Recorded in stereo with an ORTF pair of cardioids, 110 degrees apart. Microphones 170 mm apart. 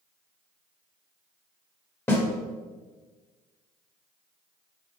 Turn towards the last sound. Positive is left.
turn(degrees=15)